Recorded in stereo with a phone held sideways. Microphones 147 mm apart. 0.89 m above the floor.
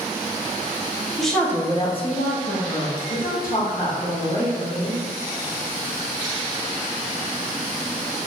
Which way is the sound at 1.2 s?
Centre (ahead or behind).